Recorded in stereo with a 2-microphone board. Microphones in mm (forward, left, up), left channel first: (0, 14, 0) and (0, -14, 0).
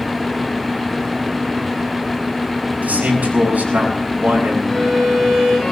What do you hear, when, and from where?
2.8 s a man speaking: 80° right, 8.5 m
4.7 s a violin: 5° left (ahead or behind), 5.5 m